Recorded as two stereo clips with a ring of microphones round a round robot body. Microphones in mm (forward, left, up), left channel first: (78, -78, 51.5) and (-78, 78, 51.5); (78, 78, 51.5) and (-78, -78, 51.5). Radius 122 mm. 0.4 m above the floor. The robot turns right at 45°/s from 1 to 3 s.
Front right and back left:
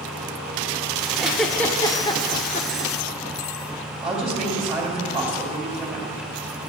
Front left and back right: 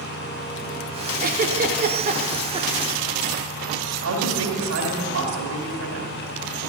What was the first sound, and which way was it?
A giggle, 145° right.